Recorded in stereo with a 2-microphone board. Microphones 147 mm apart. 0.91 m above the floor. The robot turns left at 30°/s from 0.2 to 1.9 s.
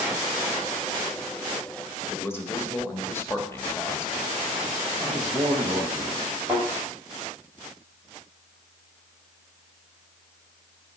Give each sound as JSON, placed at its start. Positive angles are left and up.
{"t": 2.1, "sound": "a man speaking", "side_deg": 15, "distance_m": 1.4}
{"t": 5.0, "sound": "a man speaking", "side_deg": -25, "distance_m": 1.3}
{"t": 6.5, "sound": "a thud", "side_deg": 0, "distance_m": 5.5}